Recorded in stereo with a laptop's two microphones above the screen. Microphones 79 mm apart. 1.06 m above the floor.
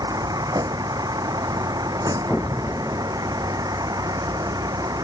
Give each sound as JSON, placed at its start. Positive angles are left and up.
{"t": 0.0, "sound": "a vehicle", "side_deg": -55}
{"t": 2.3, "sound": "an explosion", "side_deg": 10}